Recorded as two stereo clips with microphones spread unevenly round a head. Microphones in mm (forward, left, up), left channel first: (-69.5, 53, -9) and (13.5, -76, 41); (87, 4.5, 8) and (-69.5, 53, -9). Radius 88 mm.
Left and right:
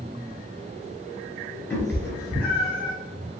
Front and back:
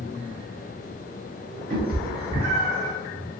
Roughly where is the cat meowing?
Behind right.